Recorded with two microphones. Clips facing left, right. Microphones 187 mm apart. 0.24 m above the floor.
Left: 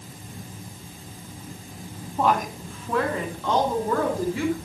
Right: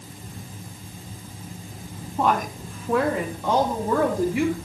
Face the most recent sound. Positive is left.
turn(degrees=-15)  # may be behind; listen again after turning